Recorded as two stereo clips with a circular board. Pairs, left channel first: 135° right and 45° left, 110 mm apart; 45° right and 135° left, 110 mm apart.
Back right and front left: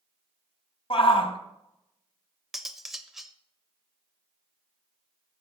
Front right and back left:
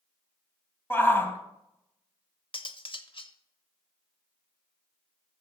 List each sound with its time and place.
0.9 s a shout: 115° right, 1.9 m
2.5 s cutlery clinking: 40° right, 0.8 m